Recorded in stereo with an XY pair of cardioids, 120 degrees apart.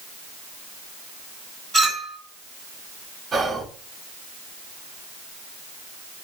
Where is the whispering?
35° right, 0.6 m.